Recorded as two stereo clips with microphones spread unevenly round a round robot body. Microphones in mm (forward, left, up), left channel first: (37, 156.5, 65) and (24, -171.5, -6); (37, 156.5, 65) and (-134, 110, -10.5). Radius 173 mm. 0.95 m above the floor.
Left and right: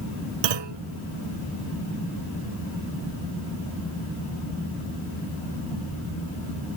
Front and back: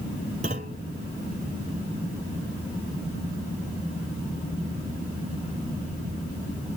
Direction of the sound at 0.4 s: 95° right.